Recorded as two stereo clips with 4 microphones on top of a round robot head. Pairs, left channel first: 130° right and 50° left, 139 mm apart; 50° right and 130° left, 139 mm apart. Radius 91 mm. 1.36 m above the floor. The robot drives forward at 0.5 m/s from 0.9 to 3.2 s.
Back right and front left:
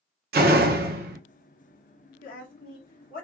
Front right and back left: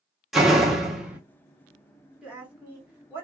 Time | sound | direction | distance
0.3 | a door slam | 45° left | 0.8 m
2.2 | a woman speaking | 145° right | 1.3 m